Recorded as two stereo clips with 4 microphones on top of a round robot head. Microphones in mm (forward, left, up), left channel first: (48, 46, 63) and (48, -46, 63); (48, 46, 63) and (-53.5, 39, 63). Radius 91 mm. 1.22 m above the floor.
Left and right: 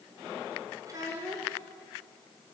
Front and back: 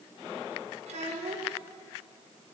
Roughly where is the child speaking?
Behind right.